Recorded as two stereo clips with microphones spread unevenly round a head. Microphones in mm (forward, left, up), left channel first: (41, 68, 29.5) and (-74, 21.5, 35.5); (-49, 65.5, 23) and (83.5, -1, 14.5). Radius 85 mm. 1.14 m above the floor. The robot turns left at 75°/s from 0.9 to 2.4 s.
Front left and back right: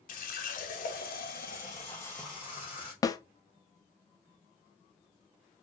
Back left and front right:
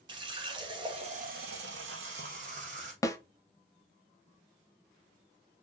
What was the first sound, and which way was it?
A running tap, 35° left.